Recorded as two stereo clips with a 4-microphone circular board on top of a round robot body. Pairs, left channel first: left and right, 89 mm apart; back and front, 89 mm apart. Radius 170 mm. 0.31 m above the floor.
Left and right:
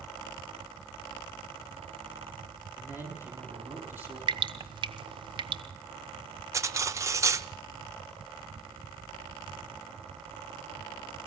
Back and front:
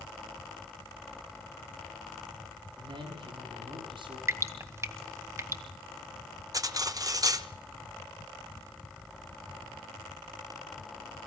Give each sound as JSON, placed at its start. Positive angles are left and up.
{"t": 2.8, "sound": "a man speaking", "azimuth_deg": -20, "distance_m": 7.5}
{"t": 4.3, "sound": "dripping", "azimuth_deg": -60, "distance_m": 1.2}
{"t": 6.5, "sound": "cutlery clinking", "azimuth_deg": -40, "distance_m": 1.1}